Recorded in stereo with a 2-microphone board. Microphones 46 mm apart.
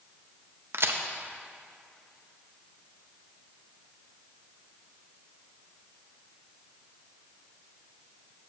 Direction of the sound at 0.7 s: 60° right (ahead or behind).